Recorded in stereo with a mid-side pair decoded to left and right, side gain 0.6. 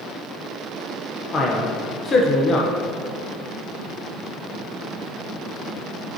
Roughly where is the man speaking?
Ahead left.